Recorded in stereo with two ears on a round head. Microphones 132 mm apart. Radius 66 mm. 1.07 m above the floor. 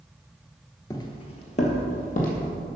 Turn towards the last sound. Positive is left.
turn(degrees=60)  # may be behind; listen again after turning